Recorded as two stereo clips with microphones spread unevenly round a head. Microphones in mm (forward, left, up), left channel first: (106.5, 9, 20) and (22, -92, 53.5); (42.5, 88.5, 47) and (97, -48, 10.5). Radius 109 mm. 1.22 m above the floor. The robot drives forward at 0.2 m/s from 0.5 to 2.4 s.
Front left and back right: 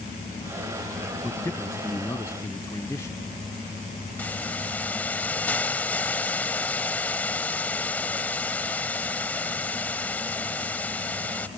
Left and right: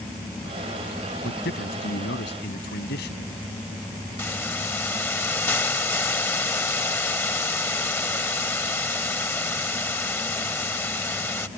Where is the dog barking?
I don't hear a dog barking.